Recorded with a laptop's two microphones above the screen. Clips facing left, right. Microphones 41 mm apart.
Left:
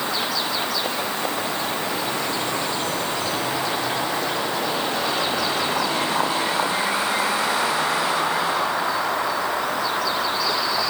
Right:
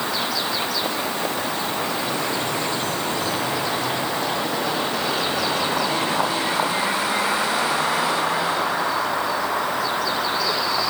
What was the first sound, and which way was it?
Only background noise.